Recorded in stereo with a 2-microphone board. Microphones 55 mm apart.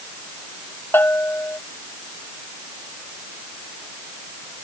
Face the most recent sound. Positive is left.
turn(degrees=40)  # may be behind; listen again after turning